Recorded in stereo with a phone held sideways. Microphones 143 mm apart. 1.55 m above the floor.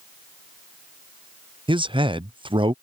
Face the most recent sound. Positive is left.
turn(degrees=-35)  # may be behind; listen again after turning